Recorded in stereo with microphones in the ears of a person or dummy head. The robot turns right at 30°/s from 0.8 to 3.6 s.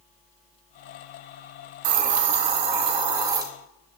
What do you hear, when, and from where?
1.8 s a hiss: 70° right, 1.2 m; by 3.4 s 25° right, 1.2 m